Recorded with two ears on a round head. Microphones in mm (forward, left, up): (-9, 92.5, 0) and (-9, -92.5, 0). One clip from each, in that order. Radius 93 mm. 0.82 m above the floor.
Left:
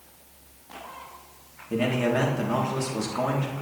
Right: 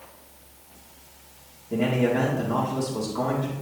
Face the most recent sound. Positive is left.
turn(degrees=65)  # may be behind; listen again after turning